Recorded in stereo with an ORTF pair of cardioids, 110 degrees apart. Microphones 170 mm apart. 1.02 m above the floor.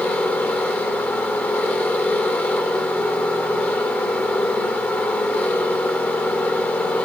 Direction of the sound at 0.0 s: 10° left.